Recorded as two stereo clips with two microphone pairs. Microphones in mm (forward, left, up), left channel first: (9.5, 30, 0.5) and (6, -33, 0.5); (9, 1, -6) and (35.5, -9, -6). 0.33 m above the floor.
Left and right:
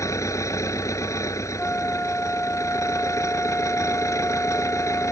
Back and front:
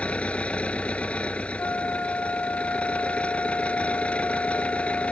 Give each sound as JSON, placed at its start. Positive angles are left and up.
{"t": 0.0, "sound": "an engine running", "azimuth_deg": 120}
{"t": 1.6, "sound": "a flute", "azimuth_deg": 150}